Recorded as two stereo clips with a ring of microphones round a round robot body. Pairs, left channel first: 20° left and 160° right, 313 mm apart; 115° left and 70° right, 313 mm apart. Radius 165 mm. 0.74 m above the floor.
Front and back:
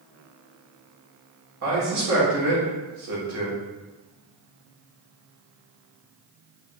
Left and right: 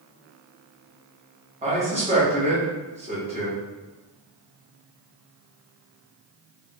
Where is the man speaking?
135° right, 1.6 m.